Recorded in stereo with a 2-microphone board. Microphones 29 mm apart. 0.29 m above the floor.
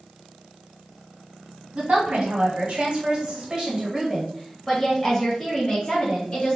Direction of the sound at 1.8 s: 50° right (ahead or behind).